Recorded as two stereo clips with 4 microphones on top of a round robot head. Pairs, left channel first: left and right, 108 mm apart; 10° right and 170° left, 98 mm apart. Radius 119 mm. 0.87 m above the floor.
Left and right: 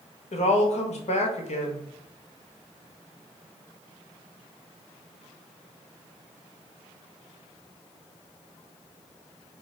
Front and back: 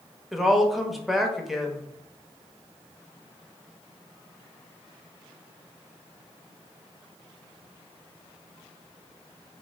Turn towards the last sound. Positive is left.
turn(degrees=80)